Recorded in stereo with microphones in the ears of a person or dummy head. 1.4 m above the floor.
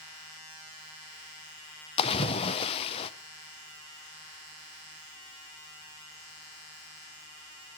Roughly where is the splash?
Left.